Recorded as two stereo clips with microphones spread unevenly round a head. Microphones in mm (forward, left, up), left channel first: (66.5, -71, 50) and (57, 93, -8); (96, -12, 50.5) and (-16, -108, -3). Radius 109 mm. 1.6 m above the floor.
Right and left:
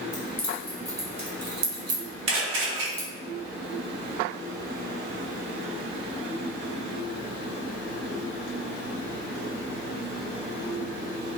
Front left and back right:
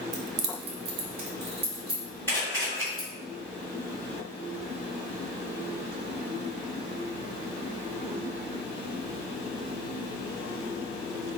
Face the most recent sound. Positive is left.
turn(degrees=105)